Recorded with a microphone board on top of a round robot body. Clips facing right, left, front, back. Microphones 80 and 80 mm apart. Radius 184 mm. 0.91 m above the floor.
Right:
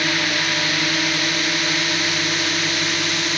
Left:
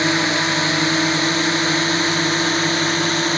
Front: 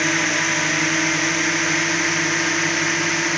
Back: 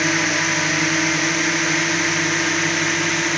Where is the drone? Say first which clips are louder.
Left 4 dB, back 1 dB; 95° left; by 3.4 s 90° left.